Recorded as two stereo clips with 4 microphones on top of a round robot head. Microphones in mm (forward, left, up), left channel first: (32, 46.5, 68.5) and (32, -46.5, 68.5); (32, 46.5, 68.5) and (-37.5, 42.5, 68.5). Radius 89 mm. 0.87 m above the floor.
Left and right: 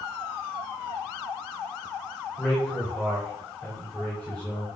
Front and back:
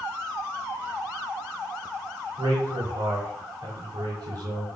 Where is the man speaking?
175° left, 3 m.